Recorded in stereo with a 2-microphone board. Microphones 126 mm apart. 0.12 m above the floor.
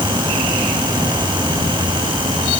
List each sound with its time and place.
Only background noise.